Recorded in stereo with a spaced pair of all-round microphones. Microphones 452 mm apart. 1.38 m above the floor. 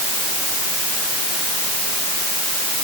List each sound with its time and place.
Only background noise.